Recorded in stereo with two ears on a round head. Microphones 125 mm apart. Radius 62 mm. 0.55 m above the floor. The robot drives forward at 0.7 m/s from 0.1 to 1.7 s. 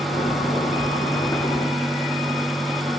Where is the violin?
I don't hear a violin.